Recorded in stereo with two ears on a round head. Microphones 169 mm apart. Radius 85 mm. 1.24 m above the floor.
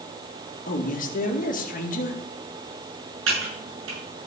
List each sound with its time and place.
0.7 s a man speaking: 45° left (ahead or behind), 2.0 m
3.3 s typing on a keyboard: 75° right (ahead or behind), 6 m